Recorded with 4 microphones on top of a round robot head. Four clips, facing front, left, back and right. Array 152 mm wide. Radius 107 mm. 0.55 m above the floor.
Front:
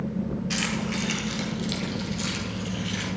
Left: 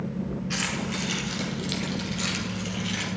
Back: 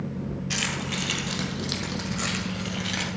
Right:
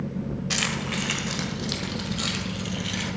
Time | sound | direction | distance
0.5 | keys jangling | 95° right | 1.9 m